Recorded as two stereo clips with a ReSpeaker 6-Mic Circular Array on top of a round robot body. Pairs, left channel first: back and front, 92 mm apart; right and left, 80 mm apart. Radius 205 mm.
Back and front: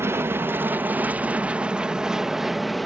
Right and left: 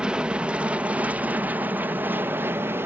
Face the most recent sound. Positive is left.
turn(degrees=90)